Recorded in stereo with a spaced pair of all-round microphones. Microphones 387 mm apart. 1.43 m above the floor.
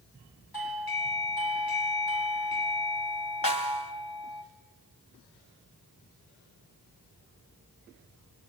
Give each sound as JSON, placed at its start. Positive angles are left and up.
{"t": 0.5, "sound": "a doorbell", "side_deg": 65, "distance_m": 1.9}
{"t": 3.4, "sound": "a snare drum", "side_deg": 60, "distance_m": 2.5}